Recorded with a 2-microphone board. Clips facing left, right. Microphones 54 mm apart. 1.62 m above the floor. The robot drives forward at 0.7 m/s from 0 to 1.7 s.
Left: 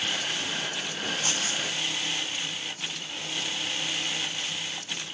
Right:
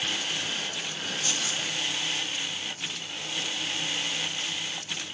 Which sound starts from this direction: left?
Keys jangling, at 1.2 s.